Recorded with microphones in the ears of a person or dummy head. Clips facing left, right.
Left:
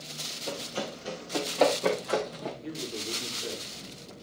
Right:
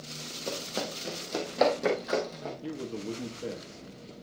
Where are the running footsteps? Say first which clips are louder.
Even; 40° right (ahead or behind), 3 m; by 2.5 s 10° right (ahead or behind), 4 m.